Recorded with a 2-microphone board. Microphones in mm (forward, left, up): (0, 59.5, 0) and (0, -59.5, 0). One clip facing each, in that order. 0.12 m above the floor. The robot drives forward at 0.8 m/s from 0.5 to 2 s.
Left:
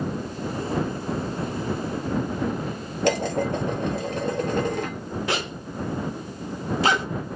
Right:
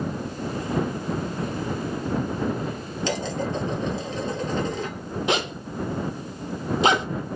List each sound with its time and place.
3.0 s dishes clattering: 60° left (ahead or behind), 1.5 m
5.3 s a zipper: 20° right (ahead or behind), 0.8 m